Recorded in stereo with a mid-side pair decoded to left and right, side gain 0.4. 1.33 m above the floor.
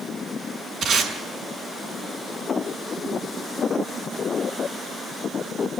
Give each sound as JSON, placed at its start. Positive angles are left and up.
{"t": 0.8, "sound": "tape being pulled", "azimuth_deg": -65, "distance_m": 6.0}